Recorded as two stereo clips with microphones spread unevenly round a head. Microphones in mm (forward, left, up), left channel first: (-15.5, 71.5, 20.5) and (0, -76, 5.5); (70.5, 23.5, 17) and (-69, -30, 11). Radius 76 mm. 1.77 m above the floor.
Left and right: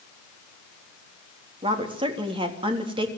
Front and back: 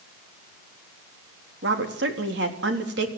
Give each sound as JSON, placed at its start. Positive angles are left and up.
{"t": 1.6, "sound": "a woman speaking", "azimuth_deg": -145, "distance_m": 3.5}